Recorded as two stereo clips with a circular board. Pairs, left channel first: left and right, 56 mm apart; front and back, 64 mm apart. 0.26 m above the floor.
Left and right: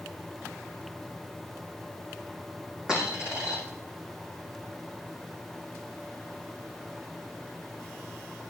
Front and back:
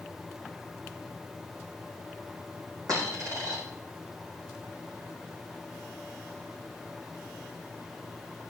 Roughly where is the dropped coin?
Behind.